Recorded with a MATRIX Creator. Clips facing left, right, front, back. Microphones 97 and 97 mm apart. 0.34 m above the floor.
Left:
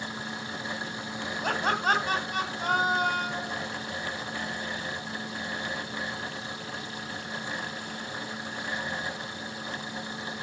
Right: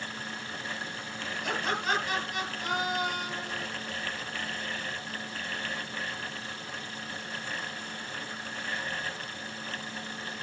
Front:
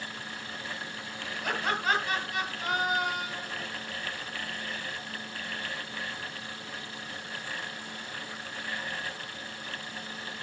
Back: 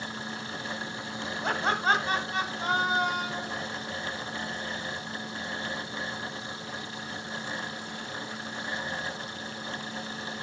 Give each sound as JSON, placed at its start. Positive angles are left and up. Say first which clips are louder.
{"t": 1.4, "sound": "laughter", "louder": "left 5 dB, back 3 dB", "azimuth_deg": 125, "distance_m": 3.0}